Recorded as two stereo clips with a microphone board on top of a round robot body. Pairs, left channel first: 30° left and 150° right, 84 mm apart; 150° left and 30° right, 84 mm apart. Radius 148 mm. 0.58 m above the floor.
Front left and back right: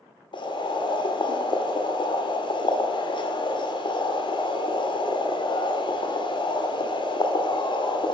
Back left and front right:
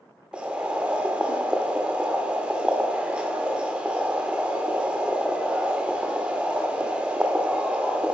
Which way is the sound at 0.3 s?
50° left.